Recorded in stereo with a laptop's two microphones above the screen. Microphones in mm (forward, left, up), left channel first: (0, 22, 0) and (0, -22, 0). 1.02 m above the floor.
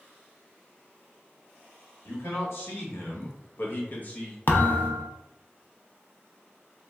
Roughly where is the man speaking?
Left.